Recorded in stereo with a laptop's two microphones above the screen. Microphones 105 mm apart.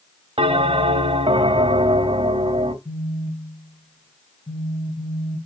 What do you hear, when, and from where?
0.4 s a bell: 65° right (ahead or behind), 0.9 m
2.9 s a phone buzzing: 65° left (ahead or behind), 1.4 m